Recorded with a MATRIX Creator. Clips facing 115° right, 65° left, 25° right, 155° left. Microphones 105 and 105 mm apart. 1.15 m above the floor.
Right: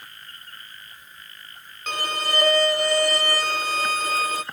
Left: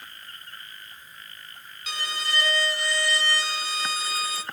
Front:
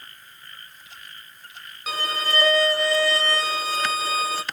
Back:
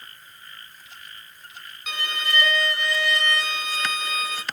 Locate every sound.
1.9 s a violin: 75° right, 0.7 m